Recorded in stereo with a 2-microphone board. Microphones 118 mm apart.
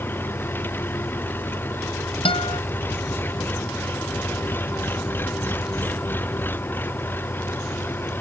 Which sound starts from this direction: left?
A guitar, at 2.2 s.